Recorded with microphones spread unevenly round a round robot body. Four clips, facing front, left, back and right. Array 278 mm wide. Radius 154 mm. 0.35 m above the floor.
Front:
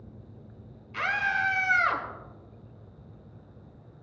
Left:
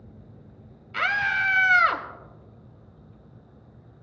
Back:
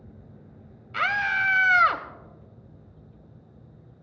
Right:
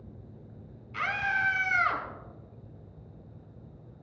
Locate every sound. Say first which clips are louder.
0.9 s a scream: left 5 dB, back 3 dB; 125° left, 1.0 m